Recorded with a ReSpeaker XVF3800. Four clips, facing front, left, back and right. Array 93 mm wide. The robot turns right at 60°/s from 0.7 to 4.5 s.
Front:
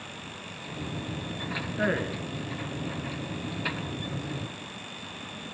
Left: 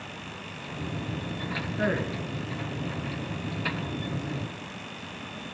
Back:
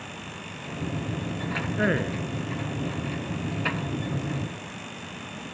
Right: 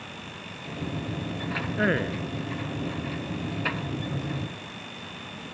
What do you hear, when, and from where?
1.8 s a man speaking: 125° right, 1.1 m; by 2.2 s 95° right, 1.1 m